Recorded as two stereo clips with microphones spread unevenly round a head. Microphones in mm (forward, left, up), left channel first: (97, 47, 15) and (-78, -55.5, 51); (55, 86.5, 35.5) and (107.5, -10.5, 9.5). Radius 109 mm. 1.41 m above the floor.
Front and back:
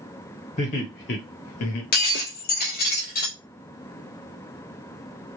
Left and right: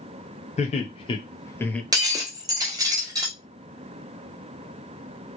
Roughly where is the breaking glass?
Ahead.